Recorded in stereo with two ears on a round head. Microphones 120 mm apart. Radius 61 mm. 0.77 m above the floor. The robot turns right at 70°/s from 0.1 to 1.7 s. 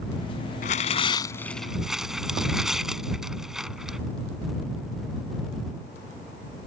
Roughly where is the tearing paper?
Left.